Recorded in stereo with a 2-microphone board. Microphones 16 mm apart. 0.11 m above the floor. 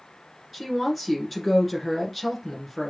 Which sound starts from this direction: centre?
A woman speaking, at 0.5 s.